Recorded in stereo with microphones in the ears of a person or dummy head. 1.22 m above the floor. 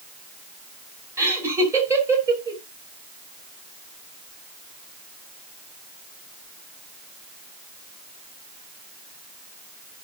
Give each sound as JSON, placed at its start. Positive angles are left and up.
{"t": 1.2, "sound": "laughter", "side_deg": -15, "distance_m": 2.5}